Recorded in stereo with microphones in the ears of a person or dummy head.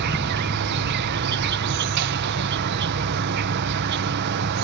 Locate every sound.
0.0 s an insect: 60° right (ahead or behind)